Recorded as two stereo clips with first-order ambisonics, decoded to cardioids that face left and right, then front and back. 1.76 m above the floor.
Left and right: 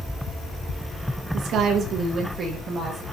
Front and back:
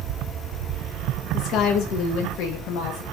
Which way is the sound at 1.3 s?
45° right.